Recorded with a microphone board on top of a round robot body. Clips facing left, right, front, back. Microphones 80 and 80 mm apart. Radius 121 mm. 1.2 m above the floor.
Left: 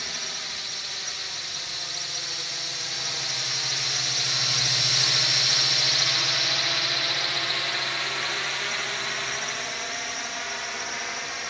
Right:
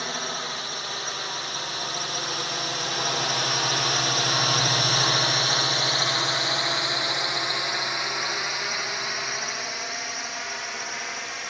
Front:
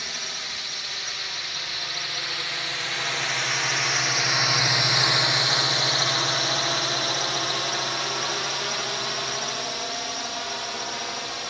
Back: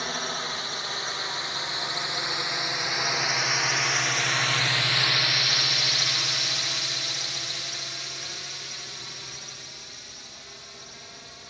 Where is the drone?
135° right; by 11.5 s straight ahead.